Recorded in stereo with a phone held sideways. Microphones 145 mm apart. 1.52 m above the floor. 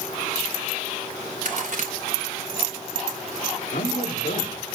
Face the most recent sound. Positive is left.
turn(degrees=80)